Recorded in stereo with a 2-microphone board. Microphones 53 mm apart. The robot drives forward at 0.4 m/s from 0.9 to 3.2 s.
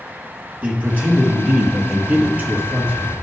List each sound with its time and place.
0.6 s a man speaking: 30° right (ahead or behind), 1.9 m; by 3.1 s 35° right (ahead or behind), 1.6 m